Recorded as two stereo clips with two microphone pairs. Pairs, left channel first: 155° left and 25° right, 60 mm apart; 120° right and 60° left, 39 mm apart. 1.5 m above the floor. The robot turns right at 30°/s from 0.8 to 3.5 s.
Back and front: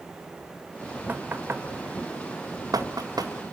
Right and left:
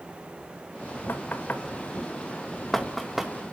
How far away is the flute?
No flute in this recording.